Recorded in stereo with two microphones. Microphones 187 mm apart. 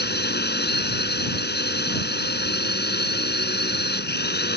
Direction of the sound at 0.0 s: 65° left (ahead or behind).